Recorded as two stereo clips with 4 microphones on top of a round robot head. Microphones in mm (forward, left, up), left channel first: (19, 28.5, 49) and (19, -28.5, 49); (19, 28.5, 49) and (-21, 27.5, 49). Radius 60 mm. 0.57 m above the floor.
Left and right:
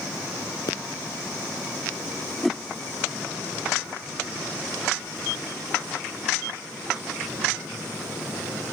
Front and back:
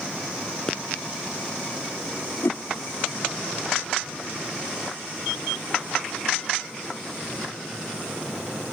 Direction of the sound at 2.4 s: Straight ahead.